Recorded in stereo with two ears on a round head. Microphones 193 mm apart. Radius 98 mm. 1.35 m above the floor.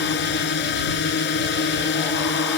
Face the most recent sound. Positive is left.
turn(degrees=55)  # may be behind; listen again after turning